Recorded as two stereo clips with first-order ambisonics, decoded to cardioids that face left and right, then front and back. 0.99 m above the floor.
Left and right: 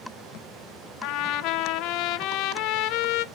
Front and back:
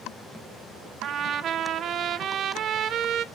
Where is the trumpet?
120° left, 0.6 m.